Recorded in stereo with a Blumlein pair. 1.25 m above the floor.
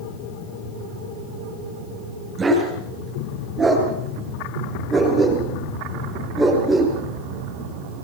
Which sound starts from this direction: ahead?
A dog barking, at 2.4 s.